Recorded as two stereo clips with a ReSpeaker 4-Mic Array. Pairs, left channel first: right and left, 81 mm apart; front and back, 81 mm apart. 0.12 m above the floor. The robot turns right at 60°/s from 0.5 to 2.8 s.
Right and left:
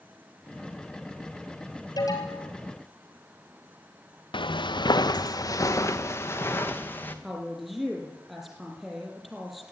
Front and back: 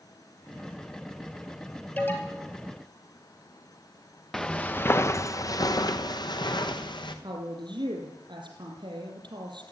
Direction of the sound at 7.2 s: Straight behind.